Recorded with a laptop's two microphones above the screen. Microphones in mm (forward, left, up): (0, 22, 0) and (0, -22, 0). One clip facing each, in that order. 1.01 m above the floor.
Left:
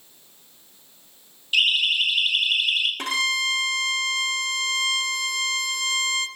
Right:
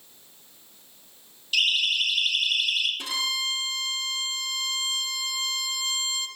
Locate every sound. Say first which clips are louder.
1.5 s a siren: left 3 dB; 25° left (ahead or behind), 7.5 m; by 2.9 s 30° left (ahead or behind), 6.5 m
3.0 s a violin: left 5 dB; 60° left (ahead or behind), 1.8 m